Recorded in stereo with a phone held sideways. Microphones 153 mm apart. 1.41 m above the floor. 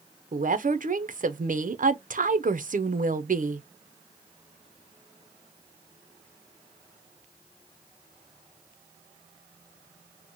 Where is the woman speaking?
60° right (ahead or behind), 0.6 m.